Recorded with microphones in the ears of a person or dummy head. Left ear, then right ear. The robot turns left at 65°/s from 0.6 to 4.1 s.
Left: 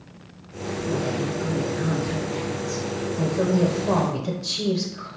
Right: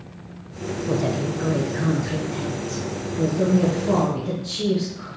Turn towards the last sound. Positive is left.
turn(degrees=60)